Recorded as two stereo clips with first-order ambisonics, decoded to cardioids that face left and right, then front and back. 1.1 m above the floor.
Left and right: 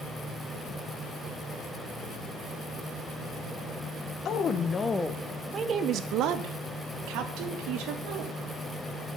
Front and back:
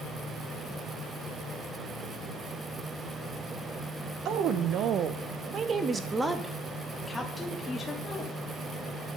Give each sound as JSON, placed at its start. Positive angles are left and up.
{"t": 4.2, "sound": "a woman speaking", "azimuth_deg": 140, "distance_m": 0.8}